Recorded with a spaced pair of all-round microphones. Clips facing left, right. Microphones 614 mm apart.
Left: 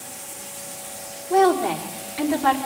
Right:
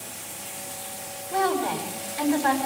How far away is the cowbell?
I don't hear a cowbell.